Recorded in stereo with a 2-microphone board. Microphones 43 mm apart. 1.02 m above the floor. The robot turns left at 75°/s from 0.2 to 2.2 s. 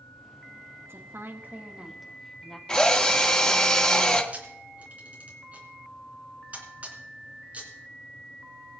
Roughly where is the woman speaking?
Right.